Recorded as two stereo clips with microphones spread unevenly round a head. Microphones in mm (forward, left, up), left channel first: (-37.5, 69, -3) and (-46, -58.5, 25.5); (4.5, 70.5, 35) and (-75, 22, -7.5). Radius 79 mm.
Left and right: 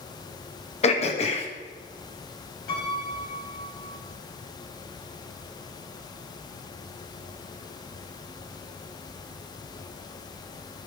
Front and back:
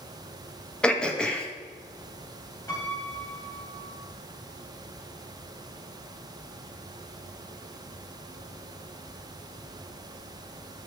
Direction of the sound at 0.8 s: 115° left.